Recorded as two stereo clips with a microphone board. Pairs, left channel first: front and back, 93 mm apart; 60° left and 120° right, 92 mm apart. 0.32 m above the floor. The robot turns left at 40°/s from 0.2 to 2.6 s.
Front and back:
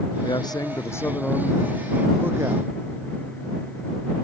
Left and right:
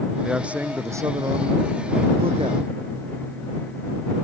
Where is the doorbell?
I don't hear a doorbell.